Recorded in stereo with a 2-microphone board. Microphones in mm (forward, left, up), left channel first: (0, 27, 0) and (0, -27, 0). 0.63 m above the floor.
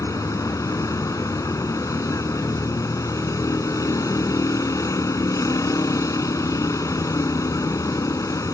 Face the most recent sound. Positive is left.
turn(degrees=90)